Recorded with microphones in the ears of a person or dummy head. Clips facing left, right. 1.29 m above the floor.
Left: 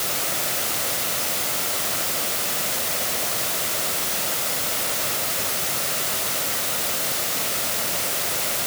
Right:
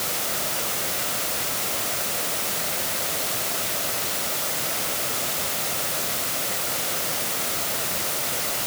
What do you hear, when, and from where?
Only background noise.